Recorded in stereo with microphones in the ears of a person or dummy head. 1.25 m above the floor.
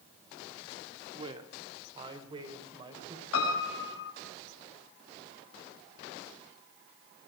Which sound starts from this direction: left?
A piano, at 3.3 s.